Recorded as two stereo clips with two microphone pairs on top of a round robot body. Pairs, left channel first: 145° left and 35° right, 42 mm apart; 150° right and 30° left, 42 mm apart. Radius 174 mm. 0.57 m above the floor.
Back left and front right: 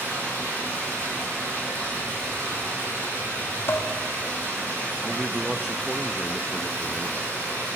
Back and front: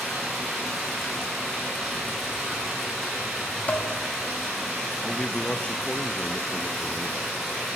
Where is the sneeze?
I don't hear a sneeze.